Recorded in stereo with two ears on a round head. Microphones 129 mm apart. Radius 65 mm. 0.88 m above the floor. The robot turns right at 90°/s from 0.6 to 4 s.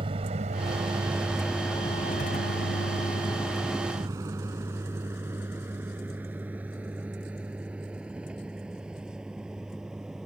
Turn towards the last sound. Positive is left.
turn(degrees=-5)  # may be behind; listen again after turning